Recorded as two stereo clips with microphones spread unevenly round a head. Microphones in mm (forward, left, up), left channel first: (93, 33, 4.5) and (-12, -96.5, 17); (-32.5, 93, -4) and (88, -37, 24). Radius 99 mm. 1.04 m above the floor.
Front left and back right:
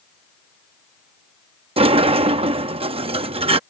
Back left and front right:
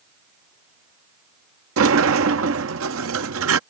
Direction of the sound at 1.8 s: 70° right.